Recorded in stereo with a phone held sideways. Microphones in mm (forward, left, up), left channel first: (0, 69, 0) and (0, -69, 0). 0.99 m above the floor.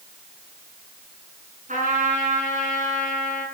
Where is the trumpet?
70° right (ahead or behind), 4.5 m.